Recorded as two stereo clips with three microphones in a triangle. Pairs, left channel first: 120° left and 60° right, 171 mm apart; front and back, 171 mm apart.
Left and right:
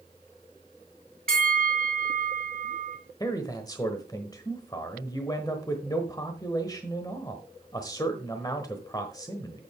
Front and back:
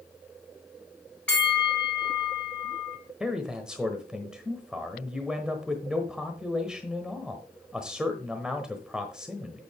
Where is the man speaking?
100° left, 1.1 m.